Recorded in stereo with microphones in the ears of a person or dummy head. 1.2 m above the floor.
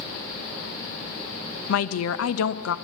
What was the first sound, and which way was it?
A woman speaking, 85° left.